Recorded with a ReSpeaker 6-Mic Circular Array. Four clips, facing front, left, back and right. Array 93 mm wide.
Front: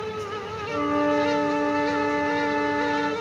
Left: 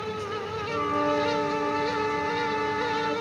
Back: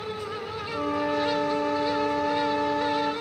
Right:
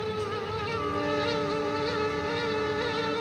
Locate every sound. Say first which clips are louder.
0.7 s a flute: left 5 dB, front 5 dB; 25° left, 1.6 m